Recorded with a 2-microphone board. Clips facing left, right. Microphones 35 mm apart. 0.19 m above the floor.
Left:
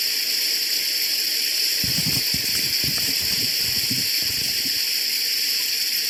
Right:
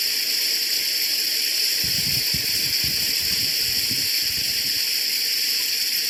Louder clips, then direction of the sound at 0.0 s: Even; centre (ahead or behind).